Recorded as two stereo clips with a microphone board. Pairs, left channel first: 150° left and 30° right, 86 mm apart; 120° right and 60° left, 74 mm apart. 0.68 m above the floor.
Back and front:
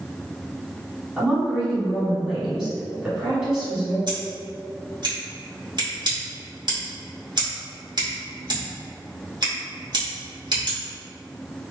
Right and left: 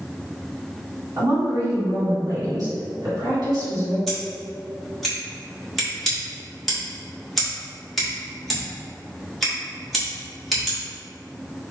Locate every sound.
1.2 s a woman speaking: 55° left, 2.0 m
4.1 s scissors: 30° right, 1.6 m